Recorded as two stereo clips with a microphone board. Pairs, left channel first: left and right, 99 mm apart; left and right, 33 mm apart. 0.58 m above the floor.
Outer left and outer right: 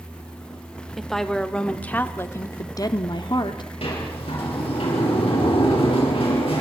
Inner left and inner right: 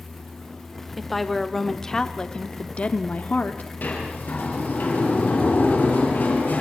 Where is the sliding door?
75° left (ahead or behind), 6 m.